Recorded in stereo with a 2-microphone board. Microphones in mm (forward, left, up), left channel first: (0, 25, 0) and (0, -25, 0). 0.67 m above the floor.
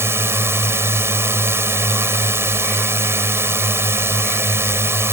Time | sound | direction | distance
0.0 | a drone | 55° right (ahead or behind) | ?